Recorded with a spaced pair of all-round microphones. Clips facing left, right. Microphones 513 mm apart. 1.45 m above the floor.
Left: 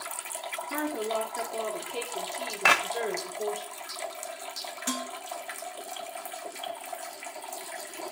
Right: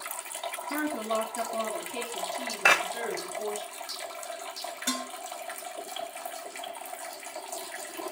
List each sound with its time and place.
0.7 s a woman speaking: 30° right (ahead or behind), 3 m
2.6 s a clap: 25° left (ahead or behind), 1.3 m
4.9 s dishes clattering: 5° right (ahead or behind), 1.8 m